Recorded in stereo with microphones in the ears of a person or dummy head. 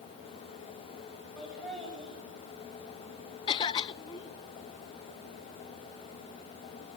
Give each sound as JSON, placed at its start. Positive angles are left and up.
{"t": 1.4, "sound": "laughter", "side_deg": 0, "distance_m": 8.0}
{"t": 3.5, "sound": "a cough", "side_deg": 25, "distance_m": 0.8}